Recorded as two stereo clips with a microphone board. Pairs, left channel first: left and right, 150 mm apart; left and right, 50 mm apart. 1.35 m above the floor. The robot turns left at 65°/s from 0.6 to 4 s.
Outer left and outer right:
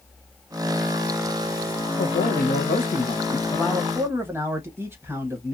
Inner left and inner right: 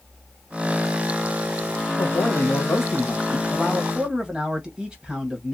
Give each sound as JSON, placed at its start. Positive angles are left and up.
{"t": 2.0, "sound": "a man speaking", "azimuth_deg": 115, "distance_m": 1.0}